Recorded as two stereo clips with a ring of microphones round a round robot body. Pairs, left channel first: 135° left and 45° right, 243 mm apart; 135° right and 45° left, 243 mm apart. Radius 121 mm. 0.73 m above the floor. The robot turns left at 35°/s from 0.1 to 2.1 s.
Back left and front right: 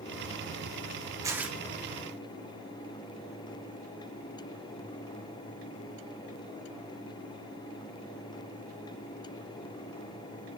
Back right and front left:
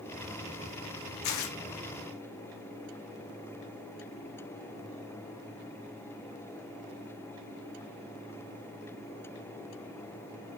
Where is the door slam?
I don't hear a door slam.